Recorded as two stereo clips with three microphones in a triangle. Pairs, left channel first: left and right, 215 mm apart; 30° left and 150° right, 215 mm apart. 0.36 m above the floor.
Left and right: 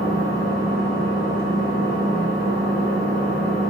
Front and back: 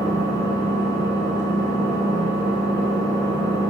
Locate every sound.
0.0 s an engine running: 95° right, 1.4 m